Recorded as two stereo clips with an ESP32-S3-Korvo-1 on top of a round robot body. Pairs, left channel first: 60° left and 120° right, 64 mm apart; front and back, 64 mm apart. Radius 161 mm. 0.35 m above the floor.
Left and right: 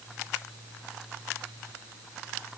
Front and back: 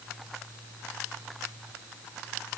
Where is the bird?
I don't hear a bird.